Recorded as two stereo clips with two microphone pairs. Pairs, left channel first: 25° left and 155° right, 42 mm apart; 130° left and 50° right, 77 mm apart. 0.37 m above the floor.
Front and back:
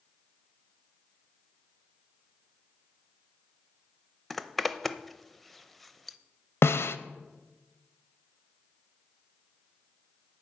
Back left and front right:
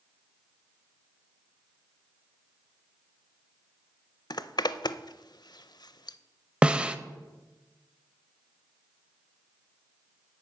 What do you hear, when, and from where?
4.3 s a zipper: 115° left, 0.5 m
6.6 s a snare drum: 25° left, 0.6 m